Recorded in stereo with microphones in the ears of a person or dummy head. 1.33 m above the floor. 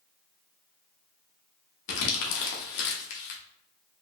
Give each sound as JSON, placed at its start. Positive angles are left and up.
{"t": 1.9, "sound": "crumpling", "side_deg": 60, "distance_m": 0.9}